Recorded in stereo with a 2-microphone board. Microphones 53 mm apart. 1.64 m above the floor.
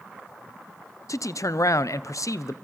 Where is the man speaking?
80° left, 0.8 m.